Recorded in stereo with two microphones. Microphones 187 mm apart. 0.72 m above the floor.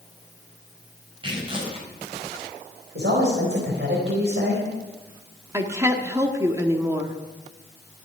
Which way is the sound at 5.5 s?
15° right (ahead or behind).